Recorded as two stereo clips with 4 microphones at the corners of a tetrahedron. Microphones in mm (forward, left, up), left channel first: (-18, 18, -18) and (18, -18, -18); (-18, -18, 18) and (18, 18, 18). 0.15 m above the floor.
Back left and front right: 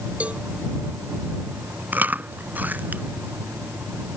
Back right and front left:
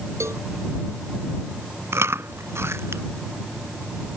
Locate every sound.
0.2 s a cowbell: 15° left
1.9 s chewing: 10° left